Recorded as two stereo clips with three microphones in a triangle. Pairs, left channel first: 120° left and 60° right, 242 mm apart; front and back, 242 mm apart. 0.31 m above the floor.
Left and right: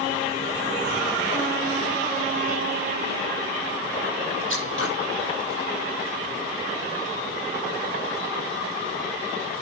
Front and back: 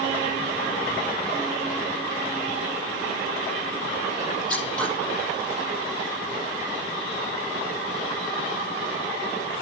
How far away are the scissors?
About 9 m.